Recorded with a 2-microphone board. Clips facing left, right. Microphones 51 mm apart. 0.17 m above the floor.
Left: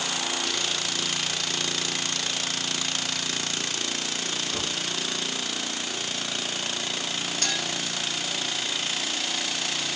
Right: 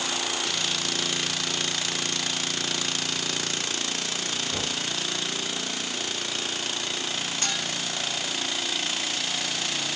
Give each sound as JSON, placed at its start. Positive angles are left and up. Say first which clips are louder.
{"t": 4.5, "sound": "knocking", "louder": "even", "side_deg": -65, "distance_m": 2.5}
{"t": 7.4, "sound": "a clink", "louder": "left 2 dB", "side_deg": -25, "distance_m": 1.8}